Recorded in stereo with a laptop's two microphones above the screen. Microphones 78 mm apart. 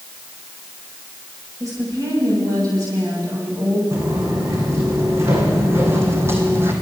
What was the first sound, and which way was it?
A woman speaking, 45° right (ahead or behind).